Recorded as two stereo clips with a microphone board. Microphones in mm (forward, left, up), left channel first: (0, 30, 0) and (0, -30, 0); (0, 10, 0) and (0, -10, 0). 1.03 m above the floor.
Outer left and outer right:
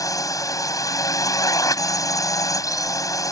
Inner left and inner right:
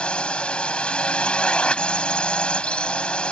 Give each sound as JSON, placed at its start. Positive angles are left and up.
{"t": 0.0, "sound": "a drone", "side_deg": 80}